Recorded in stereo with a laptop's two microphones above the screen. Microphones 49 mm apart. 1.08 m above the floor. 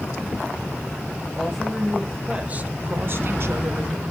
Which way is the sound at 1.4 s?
10° left (ahead or behind).